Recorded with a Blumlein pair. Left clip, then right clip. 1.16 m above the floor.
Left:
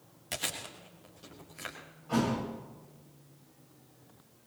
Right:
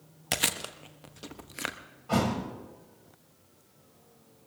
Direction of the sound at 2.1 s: 25° right.